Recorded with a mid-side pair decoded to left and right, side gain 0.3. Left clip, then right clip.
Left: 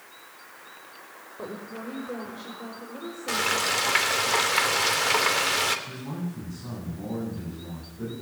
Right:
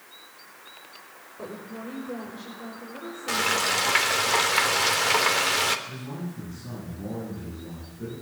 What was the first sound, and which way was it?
A woman speaking, 25° left.